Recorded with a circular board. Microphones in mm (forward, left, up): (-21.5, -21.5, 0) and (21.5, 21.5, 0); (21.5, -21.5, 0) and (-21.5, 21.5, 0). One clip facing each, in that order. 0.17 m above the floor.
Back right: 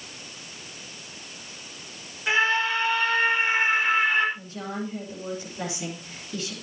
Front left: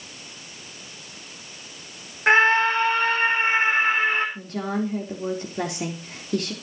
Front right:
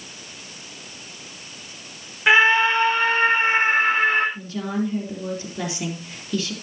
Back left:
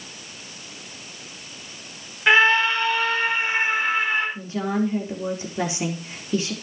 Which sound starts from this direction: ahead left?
A scream, at 2.3 s.